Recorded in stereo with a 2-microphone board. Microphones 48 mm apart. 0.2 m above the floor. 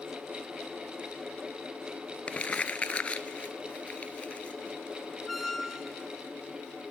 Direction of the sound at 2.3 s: 30° left (ahead or behind).